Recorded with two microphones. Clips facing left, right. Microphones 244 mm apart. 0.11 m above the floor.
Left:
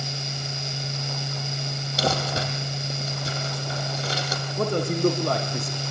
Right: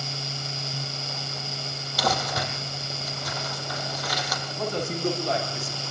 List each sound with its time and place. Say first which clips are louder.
2.0 s crumpling: left 2 dB; 25° left (ahead or behind), 4.5 m
4.6 s a man speaking: left 6 dB; 55° left (ahead or behind), 7 m